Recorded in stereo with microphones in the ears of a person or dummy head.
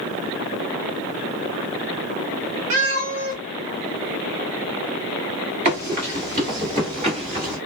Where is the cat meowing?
40° right (ahead or behind), 1.3 m.